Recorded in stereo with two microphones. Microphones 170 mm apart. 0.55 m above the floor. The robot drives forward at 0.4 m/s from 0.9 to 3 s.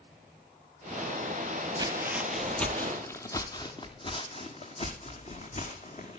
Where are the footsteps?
25° right (ahead or behind), 0.7 m; by 6.2 s 45° left (ahead or behind), 2.5 m.